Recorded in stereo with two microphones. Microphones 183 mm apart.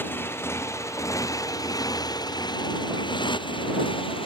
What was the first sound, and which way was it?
A motorcycle, 10° left (ahead or behind).